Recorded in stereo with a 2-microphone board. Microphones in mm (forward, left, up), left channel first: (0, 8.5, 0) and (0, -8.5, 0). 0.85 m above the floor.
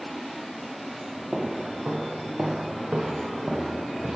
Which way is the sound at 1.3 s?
40° right (ahead or behind).